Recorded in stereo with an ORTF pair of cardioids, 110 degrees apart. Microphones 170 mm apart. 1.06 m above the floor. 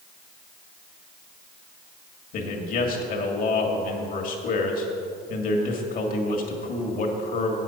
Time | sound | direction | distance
2.3 | a man speaking | 55° left | 1.9 m